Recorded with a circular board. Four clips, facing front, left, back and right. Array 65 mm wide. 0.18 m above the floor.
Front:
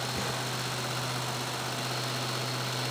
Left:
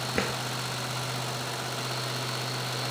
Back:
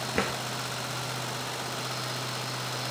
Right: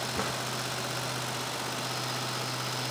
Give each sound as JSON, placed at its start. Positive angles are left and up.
{"t": 0.1, "sound": "a drawer", "azimuth_deg": 135, "distance_m": 1.8}